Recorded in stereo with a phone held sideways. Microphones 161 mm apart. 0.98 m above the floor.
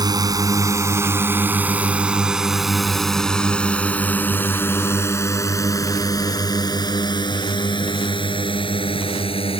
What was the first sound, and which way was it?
A drone, 25° right (ahead or behind).